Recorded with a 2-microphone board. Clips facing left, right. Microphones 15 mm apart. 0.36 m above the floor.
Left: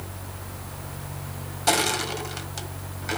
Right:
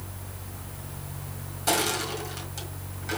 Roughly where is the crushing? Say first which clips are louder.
Left 3 dB; left.